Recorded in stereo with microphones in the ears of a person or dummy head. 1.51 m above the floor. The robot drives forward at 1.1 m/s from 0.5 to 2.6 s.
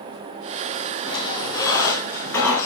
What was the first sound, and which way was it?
A squeak, 30° left (ahead or behind).